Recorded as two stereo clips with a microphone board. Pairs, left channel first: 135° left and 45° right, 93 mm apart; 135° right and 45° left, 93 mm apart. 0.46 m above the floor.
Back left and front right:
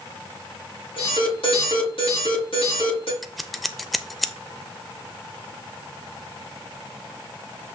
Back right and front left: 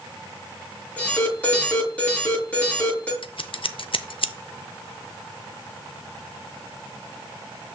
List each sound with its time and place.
1.0 s an alarm: 150° left, 6 m
3.2 s scissors: 135° right, 0.6 m